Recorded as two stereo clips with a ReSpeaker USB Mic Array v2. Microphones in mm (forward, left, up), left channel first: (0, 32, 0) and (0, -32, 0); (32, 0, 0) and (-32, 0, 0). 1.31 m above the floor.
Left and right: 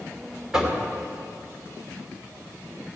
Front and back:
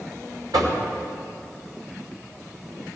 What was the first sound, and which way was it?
Knocking, 170° right.